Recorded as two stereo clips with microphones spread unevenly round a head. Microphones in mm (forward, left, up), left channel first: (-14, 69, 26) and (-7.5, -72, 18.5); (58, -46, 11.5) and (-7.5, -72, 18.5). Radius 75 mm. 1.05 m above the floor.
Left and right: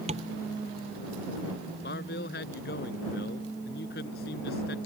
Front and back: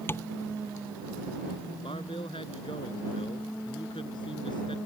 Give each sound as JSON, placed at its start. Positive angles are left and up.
{"t": 0.1, "sound": "tapping", "azimuth_deg": -35}
{"t": 1.8, "sound": "a man speaking", "azimuth_deg": 70}